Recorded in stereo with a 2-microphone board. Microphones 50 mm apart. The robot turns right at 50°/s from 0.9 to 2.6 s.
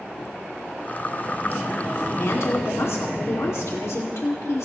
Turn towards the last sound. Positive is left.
turn(degrees=70)  # may be behind; listen again after turning